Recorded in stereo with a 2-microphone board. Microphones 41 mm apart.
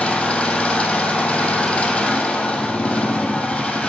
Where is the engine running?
25° left (ahead or behind), 1.4 m.